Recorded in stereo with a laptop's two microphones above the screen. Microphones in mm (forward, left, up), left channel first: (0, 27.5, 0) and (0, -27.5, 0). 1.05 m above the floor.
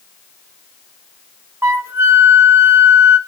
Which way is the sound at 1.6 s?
55° right (ahead or behind).